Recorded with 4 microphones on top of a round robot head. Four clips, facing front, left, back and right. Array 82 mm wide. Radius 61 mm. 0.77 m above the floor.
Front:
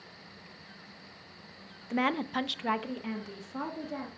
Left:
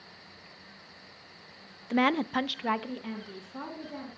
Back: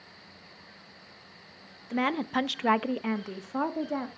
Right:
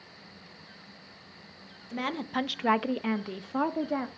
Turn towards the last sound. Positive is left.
turn(degrees=-125)